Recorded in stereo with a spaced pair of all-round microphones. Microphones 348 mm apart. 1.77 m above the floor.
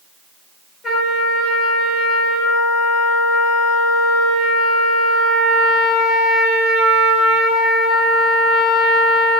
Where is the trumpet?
Centre (ahead or behind), 9.5 m.